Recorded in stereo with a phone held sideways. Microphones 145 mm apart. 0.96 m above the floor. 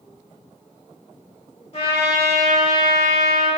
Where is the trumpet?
40° left (ahead or behind), 0.8 m.